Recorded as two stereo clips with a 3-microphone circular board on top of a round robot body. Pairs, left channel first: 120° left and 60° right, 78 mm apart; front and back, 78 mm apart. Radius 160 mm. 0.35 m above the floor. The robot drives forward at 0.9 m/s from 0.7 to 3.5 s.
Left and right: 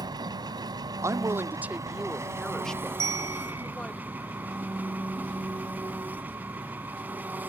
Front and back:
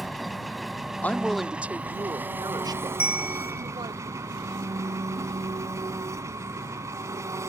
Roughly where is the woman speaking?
Ahead right.